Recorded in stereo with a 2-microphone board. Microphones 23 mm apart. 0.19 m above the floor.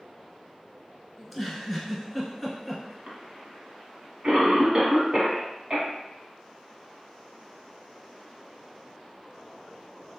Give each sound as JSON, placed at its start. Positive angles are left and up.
{"t": 1.2, "sound": "a giggle", "side_deg": 0, "distance_m": 1.0}
{"t": 3.1, "sound": "a cough", "side_deg": -40, "distance_m": 1.2}